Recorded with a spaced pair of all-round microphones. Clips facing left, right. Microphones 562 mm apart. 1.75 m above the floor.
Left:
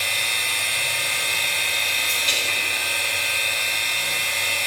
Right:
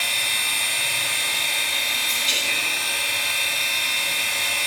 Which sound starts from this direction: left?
A machine running, at 0.0 s.